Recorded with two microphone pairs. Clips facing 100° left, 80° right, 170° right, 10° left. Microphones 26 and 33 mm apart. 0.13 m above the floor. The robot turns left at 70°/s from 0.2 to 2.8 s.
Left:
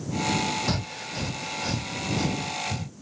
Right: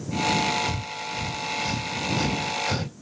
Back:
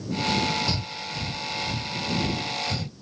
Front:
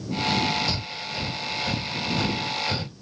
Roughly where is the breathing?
Left.